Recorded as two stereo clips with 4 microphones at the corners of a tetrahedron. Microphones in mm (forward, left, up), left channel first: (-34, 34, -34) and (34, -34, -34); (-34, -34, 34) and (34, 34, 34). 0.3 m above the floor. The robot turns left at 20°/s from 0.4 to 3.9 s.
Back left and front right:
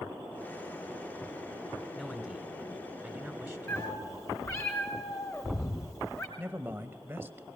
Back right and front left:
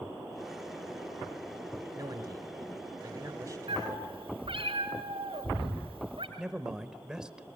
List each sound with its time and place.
1.9 s a man speaking: 55° left, 1.8 m; by 4.3 s 20° left, 1.8 m
3.7 s a cat meowing: 80° left, 5 m; by 6.3 s 75° left, 5 m
6.4 s a man speaking: 30° right, 0.9 m